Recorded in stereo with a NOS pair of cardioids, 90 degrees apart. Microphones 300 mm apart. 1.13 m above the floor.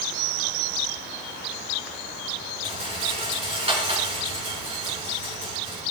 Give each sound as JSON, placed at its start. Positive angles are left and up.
{"t": 2.6, "sound": "a rattle", "azimuth_deg": -20, "distance_m": 5.5}